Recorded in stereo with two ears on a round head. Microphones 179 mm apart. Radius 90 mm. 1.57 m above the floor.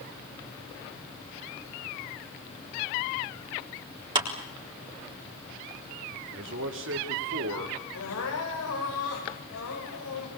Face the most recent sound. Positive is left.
turn(degrees=75)  # may be behind; listen again after turning